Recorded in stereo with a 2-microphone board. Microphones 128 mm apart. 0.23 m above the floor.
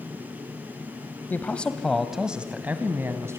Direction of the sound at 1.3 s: 15° left (ahead or behind).